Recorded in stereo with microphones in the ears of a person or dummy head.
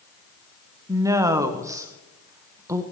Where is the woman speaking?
15° right (ahead or behind), 1.1 m.